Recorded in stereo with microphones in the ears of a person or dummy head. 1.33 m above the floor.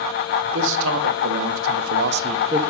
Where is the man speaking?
65° right (ahead or behind), 1.5 m; by 2.6 s 20° right (ahead or behind), 0.6 m.